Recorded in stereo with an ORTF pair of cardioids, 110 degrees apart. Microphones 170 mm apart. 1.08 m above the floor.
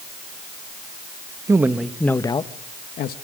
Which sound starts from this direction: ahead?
A man speaking, at 1.5 s.